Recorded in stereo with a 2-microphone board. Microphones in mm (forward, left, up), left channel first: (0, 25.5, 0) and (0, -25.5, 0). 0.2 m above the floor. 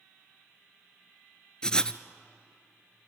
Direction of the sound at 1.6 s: 15° left (ahead or behind).